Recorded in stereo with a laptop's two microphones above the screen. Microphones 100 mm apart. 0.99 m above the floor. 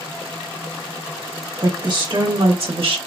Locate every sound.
1.6 s a woman speaking: 40° right (ahead or behind), 1.4 m; by 3.0 s 65° right (ahead or behind), 1.2 m